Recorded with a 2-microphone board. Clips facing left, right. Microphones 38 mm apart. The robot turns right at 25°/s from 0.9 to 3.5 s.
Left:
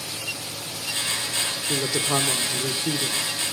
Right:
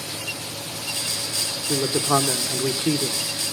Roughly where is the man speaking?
Behind.